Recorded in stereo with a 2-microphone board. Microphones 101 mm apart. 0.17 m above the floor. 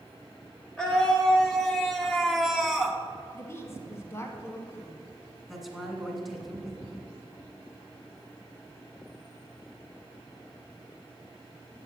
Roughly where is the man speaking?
Centre.